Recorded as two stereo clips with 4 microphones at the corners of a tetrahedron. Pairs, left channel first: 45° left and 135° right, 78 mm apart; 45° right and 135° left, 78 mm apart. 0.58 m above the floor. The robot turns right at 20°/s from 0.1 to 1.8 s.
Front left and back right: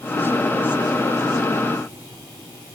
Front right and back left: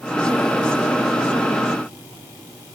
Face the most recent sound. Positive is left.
No sound to turn to.